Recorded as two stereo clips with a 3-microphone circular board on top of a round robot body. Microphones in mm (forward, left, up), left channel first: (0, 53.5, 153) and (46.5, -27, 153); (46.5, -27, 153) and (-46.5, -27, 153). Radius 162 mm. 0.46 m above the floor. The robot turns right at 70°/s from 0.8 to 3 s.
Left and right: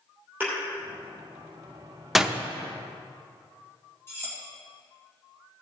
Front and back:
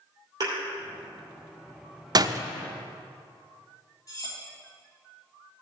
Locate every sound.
0.4 s a thud: 130° right, 2.5 m
2.1 s a door slam: 150° right, 0.6 m; by 2.4 s 130° right, 0.6 m
4.1 s cutlery clinking: 55° left, 2.5 m